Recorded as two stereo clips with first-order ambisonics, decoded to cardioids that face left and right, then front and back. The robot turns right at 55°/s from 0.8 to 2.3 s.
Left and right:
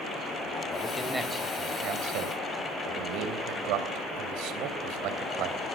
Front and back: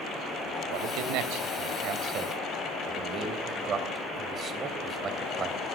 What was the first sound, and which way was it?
A man speaking, 160° left.